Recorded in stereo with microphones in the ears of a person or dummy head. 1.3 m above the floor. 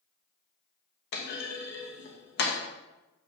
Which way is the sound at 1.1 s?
55° left (ahead or behind).